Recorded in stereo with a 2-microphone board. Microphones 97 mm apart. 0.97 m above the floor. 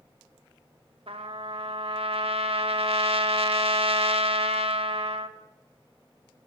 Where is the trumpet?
85° right, 1.5 m.